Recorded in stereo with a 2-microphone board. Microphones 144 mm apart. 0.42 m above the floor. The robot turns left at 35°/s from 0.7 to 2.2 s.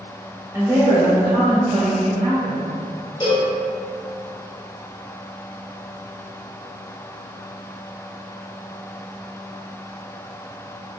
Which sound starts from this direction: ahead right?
A woman speaking, at 0.5 s.